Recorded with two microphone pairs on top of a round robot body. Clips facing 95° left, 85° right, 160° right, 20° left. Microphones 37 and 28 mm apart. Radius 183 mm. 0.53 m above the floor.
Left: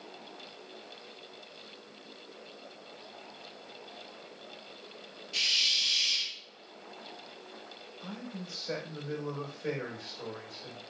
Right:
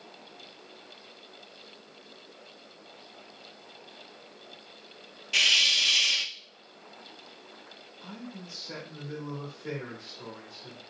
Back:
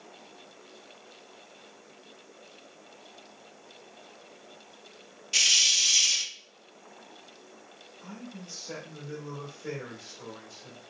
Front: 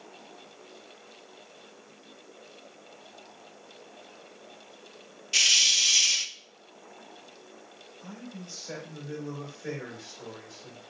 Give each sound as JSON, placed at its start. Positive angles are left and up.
{"t": 5.3, "sound": "a hiss", "azimuth_deg": -65, "distance_m": 0.6}
{"t": 8.0, "sound": "a man speaking", "azimuth_deg": 90, "distance_m": 4.0}